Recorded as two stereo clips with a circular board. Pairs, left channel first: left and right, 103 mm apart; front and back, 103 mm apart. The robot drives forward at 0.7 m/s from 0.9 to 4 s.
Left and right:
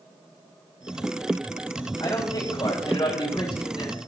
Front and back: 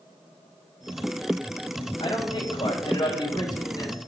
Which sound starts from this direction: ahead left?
A man speaking, at 2.0 s.